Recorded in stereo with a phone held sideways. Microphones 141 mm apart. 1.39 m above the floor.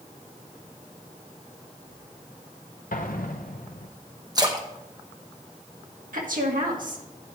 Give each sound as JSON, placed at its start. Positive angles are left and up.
{"t": 2.9, "sound": "an explosion", "side_deg": 75, "distance_m": 0.8}
{"t": 4.3, "sound": "a splash", "side_deg": -30, "distance_m": 1.0}
{"t": 6.1, "sound": "a woman speaking", "side_deg": -75, "distance_m": 1.7}